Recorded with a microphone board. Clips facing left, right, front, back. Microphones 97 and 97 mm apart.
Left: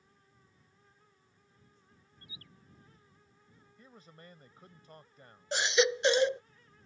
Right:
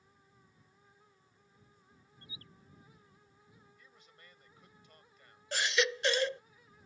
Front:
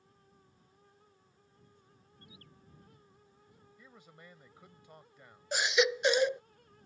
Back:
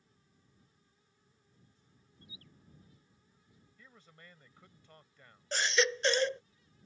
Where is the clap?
No clap in this recording.